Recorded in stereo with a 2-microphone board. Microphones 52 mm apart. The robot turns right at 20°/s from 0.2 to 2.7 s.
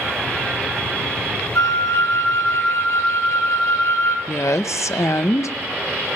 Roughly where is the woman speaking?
Left.